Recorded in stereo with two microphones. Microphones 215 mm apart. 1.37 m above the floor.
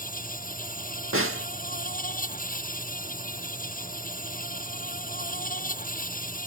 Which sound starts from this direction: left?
An insect, at 0.0 s.